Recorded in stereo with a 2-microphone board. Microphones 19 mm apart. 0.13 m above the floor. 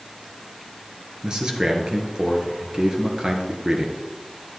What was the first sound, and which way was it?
A man speaking, 40° right (ahead or behind).